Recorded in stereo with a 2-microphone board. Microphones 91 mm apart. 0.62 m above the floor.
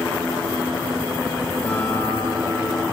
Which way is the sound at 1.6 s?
10° left (ahead or behind).